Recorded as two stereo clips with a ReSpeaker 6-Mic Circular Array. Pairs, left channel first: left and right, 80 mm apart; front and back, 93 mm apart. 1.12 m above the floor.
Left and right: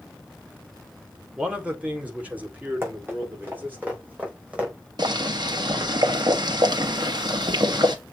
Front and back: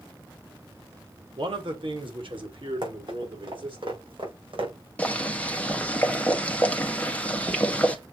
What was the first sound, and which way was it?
A man speaking, 165° right.